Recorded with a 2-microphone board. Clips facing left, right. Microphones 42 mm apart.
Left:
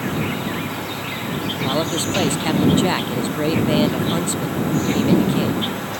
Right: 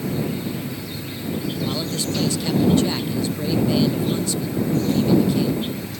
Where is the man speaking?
35° left (ahead or behind).